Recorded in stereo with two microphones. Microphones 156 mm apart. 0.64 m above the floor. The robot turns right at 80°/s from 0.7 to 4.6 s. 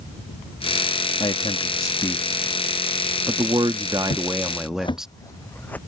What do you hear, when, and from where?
1.2 s a man speaking: 80° left; by 5.1 s 5° right
4.1 s footsteps: 55° left (ahead or behind); by 5.8 s 10° left (ahead or behind)